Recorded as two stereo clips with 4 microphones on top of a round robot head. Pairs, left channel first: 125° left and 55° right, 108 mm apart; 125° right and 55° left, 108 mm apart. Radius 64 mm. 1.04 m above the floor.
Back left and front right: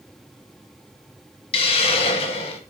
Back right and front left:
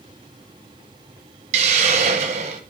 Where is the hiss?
85° left, 1.5 m.